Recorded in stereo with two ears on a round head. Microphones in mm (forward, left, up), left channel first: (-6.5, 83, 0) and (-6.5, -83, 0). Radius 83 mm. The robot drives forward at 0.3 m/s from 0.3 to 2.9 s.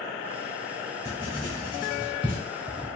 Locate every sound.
1.1 s writing: 20° left (ahead or behind), 1.9 m; by 2.9 s 30° left (ahead or behind), 1.5 m